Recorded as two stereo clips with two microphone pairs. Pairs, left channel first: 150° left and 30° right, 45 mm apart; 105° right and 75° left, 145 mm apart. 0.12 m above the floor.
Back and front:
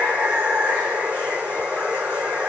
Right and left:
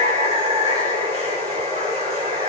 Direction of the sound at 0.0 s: 30° left.